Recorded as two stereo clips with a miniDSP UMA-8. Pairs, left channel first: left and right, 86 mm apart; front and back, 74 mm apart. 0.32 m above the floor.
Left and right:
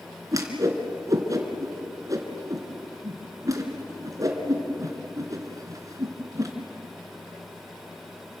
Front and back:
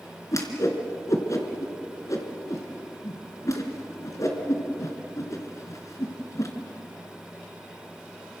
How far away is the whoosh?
About 3 m.